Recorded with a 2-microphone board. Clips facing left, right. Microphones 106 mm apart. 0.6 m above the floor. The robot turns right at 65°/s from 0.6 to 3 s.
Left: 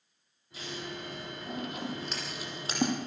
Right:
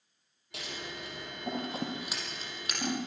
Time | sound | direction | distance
0.5 | scissors | 75° right (ahead or behind) | 5.5 m